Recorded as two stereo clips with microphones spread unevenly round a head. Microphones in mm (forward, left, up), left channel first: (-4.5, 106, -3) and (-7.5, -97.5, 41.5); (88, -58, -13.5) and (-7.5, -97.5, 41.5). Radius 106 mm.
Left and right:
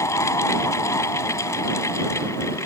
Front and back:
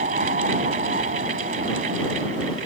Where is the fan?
165° left.